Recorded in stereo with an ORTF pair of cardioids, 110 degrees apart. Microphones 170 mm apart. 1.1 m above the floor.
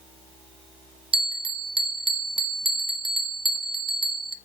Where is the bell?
30° right, 0.7 m.